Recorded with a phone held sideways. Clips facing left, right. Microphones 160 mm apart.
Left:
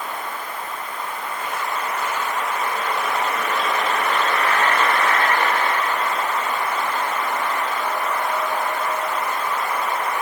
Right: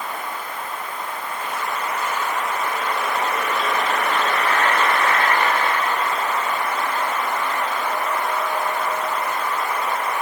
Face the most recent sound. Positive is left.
No sound to turn to.